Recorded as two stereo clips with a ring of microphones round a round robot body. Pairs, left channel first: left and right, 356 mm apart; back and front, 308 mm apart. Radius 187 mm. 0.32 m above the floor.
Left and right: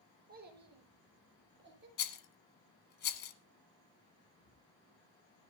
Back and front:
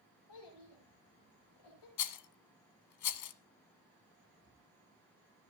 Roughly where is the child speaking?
Behind right.